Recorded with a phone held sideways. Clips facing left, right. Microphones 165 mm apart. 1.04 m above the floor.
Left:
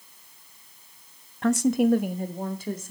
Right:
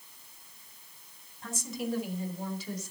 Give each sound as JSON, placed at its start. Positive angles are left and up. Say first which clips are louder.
{"t": 1.4, "sound": "a woman speaking", "louder": "left 15 dB", "side_deg": 80, "distance_m": 0.6}